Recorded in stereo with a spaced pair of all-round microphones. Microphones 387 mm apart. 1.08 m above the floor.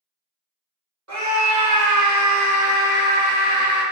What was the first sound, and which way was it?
A scream, 50° right (ahead or behind).